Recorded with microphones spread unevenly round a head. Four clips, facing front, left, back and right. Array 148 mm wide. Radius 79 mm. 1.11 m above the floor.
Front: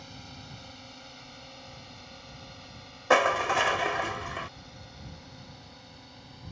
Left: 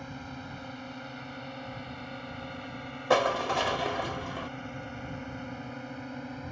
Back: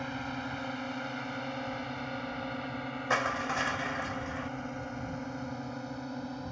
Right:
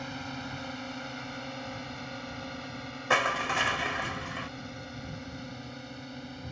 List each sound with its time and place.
0.0 s a drone: 155° right; by 6.5 s 160° left
3.1 s crushing: 30° left